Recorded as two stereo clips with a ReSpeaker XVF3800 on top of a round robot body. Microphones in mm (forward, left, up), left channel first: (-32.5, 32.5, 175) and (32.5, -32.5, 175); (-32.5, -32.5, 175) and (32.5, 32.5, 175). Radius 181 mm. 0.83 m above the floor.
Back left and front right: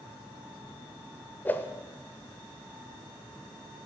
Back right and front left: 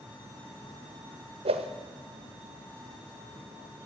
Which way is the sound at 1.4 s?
65° left.